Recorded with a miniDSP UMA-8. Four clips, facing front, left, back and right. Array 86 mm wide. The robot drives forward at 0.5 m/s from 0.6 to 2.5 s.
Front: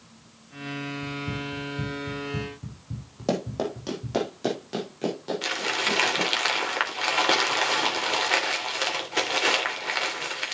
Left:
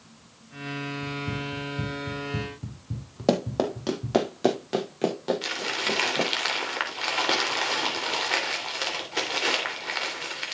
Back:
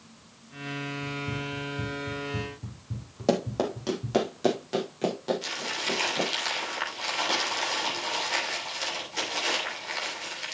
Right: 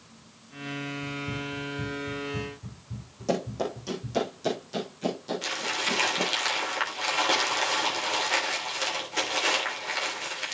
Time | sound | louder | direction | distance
1.0 | running footsteps | left 2 dB, front 1 dB | 45° left | 2.5 m
3.3 | running footsteps | left 5 dB, back 1 dB | 100° left | 2.5 m
5.4 | crumpling | left 1 dB, front 5 dB | 20° left | 3 m